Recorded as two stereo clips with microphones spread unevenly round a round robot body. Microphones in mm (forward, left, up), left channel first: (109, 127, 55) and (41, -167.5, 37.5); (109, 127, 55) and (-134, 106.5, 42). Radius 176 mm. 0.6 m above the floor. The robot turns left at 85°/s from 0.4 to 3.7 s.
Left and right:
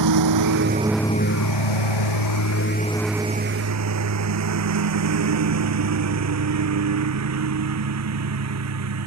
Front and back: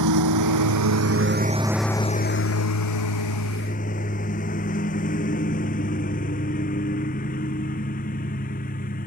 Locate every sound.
0.0 s a lawn mower: 145° right; by 9.1 s 65° right